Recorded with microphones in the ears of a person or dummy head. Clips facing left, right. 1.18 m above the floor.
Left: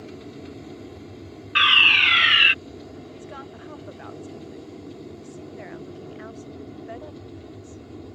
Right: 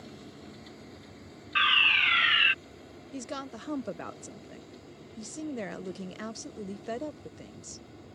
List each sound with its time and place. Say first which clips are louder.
0.0 s an aircraft: left 8 dB; 65° left (ahead or behind)
1.6 s a fire alarm: left 6 dB; 50° left (ahead or behind)
3.1 s a woman speaking: right 1 dB; 55° right (ahead or behind)